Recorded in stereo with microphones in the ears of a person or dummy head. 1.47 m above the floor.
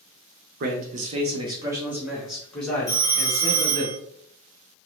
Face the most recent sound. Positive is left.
turn(degrees=-5)  # may be behind; listen again after turning